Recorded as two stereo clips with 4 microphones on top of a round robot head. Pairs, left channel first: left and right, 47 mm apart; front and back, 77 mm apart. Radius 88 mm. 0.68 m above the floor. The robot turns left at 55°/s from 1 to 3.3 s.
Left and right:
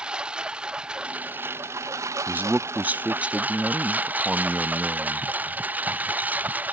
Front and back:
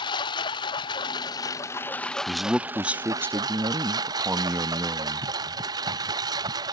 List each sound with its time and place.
0.0 s a lawn mower: 20° right; by 6.8 s 145° right
2.3 s a man speaking: 85° right; by 5.3 s 140° right